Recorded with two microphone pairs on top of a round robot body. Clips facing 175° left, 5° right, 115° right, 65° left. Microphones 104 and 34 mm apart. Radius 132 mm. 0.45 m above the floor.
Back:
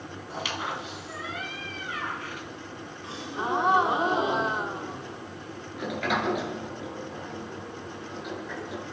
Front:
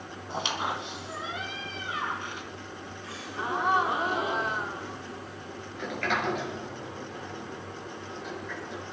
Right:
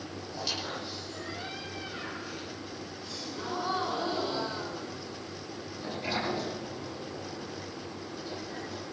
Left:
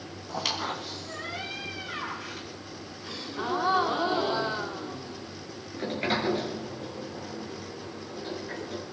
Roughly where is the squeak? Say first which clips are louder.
Front 2 dB, left 5 dB; ahead left.